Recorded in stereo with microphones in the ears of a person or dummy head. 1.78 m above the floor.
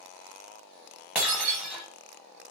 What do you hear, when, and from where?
1.1 s breaking glass: 10° right (ahead or behind), 1.5 m